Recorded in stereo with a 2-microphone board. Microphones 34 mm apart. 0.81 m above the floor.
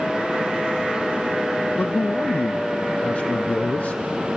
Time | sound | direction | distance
1.8 | a man speaking | 50° left (ahead or behind) | 0.5 m